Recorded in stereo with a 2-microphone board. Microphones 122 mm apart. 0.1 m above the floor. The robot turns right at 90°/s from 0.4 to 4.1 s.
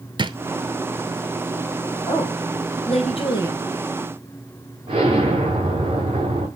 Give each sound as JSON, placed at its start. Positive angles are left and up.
{"t": 0.2, "sound": "a drawer", "side_deg": -40, "distance_m": 0.6}
{"t": 2.1, "sound": "a woman speaking", "azimuth_deg": 15, "distance_m": 3.0}
{"t": 4.9, "sound": "an explosion", "side_deg": -45, "distance_m": 4.0}